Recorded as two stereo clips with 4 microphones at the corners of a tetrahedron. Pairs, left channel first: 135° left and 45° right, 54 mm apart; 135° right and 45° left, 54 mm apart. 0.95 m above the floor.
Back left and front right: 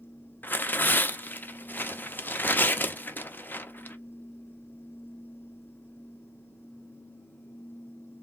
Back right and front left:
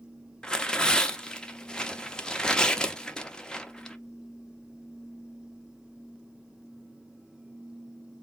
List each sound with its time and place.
0.4 s tearing paper: 160° left, 0.5 m